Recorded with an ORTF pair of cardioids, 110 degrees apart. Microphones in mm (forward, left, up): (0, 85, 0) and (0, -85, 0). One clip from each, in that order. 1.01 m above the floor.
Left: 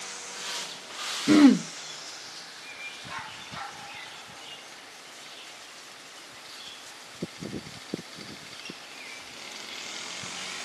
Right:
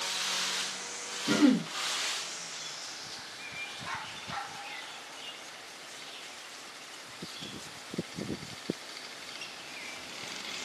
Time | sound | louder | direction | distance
1.3 | throat clearing | left 7 dB | 40° left | 0.7 m